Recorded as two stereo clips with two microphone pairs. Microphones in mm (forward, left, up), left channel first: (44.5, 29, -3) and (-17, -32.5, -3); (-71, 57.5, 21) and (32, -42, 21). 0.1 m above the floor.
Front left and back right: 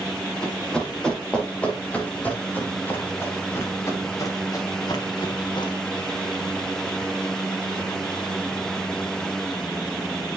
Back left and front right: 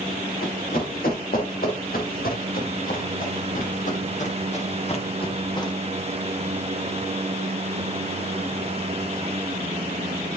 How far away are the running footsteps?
About 3.5 m.